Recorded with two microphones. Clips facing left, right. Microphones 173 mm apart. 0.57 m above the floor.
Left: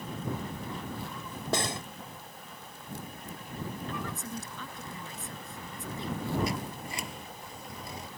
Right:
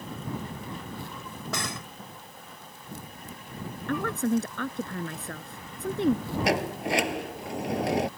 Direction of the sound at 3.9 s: 70° right (ahead or behind).